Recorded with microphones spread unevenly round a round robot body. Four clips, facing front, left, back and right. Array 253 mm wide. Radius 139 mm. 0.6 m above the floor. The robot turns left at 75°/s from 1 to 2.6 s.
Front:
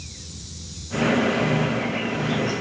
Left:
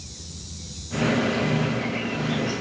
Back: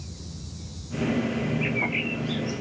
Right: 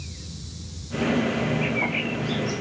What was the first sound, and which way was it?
A bird, 110° right.